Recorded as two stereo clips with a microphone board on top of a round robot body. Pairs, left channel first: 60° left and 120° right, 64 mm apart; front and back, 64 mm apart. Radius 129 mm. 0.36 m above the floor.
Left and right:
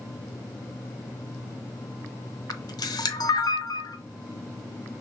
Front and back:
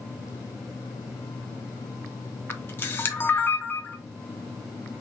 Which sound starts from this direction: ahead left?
A camera shutter, at 2.5 s.